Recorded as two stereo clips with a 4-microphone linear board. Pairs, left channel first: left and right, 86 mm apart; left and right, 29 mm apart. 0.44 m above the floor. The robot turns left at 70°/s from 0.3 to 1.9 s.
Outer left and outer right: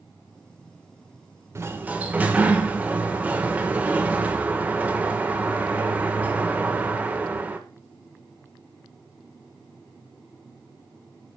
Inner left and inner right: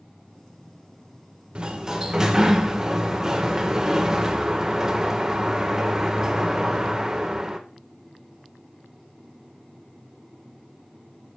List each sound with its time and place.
1.6 s a sliding door: 30° right (ahead or behind), 1.2 m; by 7.6 s 15° right (ahead or behind), 1.2 m